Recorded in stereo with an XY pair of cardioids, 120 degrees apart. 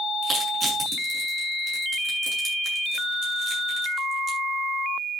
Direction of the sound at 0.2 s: 35° right.